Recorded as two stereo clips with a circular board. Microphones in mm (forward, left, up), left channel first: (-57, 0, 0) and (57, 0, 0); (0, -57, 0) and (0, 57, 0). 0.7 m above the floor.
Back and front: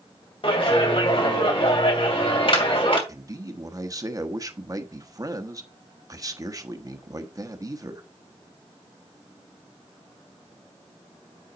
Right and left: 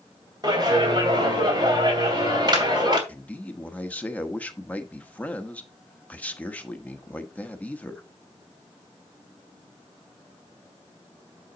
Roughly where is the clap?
Behind left.